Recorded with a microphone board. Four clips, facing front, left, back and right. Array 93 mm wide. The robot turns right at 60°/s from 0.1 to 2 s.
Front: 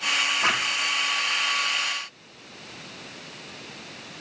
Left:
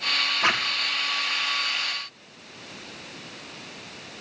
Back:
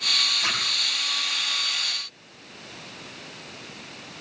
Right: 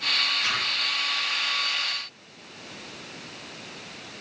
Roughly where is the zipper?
Ahead left.